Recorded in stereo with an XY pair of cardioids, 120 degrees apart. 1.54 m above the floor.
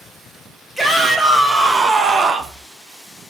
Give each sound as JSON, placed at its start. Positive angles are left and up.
{"t": 0.8, "sound": "a shout", "azimuth_deg": -10, "distance_m": 2.5}